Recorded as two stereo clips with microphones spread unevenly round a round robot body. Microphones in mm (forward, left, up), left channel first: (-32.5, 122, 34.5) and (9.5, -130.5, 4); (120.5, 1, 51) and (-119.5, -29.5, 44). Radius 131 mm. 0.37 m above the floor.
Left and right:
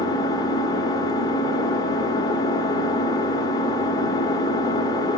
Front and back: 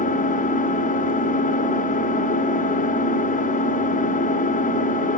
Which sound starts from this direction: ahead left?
An engine running, at 0.0 s.